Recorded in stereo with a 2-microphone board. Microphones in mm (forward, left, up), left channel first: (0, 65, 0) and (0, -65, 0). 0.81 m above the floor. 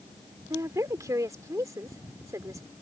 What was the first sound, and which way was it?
A woman speaking, 25° right (ahead or behind).